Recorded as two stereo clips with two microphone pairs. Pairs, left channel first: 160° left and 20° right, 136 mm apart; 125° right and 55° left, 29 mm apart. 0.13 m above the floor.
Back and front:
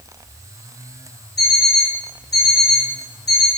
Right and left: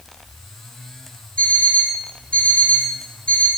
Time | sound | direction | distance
1.4 | an alarm clock | 160° right | 4 m